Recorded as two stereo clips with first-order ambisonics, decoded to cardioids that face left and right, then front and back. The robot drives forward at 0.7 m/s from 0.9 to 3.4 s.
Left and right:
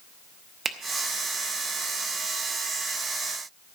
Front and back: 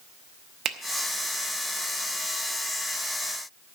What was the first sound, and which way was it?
A finger snap, 150° right.